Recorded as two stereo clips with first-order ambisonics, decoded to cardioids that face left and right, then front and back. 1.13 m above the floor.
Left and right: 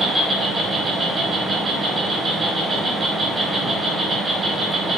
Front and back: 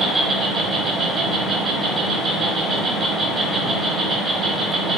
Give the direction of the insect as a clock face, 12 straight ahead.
5 o'clock.